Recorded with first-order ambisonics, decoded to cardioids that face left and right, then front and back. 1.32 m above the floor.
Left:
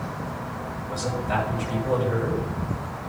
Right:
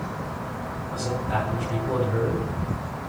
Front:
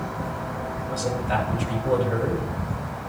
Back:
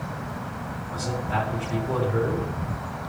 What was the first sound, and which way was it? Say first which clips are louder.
A man speaking: left 1 dB, front 2 dB; 35° left.